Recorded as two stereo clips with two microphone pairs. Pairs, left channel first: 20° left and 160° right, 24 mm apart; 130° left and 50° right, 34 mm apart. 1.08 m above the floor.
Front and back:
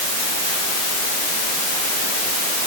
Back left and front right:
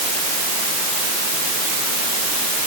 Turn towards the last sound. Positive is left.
No sound to turn to.